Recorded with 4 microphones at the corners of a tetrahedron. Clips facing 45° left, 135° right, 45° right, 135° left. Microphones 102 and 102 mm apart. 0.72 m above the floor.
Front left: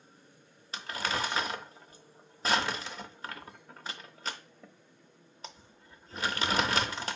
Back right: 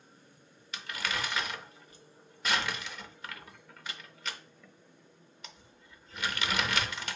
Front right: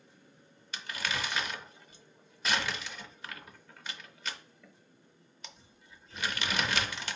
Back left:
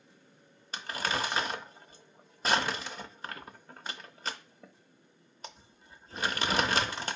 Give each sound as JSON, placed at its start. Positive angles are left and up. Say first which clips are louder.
{"t": 0.7, "sound": "crumpling", "louder": "front left 3 dB, back left 4 dB", "azimuth_deg": 90, "distance_m": 0.5}